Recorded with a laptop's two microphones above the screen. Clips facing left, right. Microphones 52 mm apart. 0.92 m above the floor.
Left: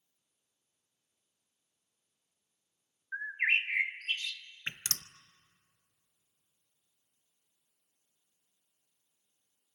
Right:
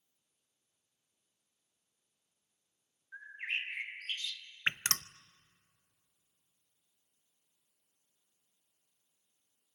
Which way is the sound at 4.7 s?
45° right (ahead or behind).